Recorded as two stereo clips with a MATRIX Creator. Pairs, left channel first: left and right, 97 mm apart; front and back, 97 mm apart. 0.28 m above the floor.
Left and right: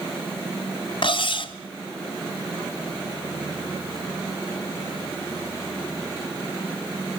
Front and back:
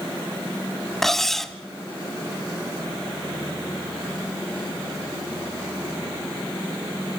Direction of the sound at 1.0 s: 85° left.